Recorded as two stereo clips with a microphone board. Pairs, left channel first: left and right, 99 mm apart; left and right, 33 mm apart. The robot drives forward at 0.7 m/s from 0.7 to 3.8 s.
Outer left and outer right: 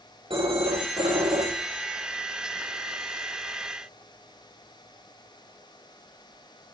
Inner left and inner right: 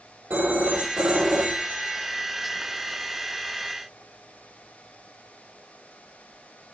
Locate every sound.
0.3 s a phone ringing: 65° right (ahead or behind), 4.5 m; by 2.0 s 70° right (ahead or behind), 4 m